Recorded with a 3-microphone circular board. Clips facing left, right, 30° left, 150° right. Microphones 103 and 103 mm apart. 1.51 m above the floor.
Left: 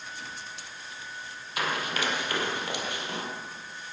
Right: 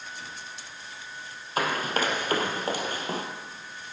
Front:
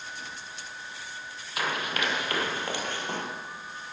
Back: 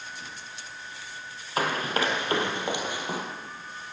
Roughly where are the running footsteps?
Behind right.